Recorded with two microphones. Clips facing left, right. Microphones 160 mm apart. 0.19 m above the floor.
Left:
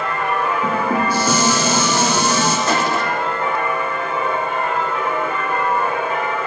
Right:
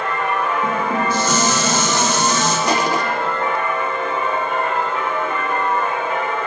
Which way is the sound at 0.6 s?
10° left (ahead or behind).